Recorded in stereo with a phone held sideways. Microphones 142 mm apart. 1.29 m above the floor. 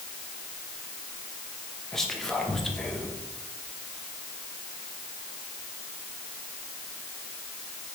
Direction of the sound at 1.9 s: 5° left (ahead or behind).